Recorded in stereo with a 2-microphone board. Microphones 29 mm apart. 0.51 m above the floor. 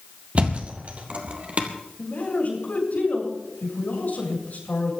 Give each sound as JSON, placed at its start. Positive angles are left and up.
{"t": 0.3, "sound": "a thud", "side_deg": -45, "distance_m": 2.0}
{"t": 2.0, "sound": "a man speaking", "side_deg": 65, "distance_m": 7.5}